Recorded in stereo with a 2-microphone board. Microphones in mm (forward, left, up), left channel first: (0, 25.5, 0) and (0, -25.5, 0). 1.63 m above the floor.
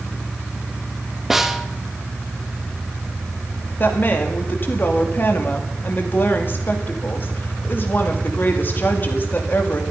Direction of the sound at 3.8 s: 40° left (ahead or behind).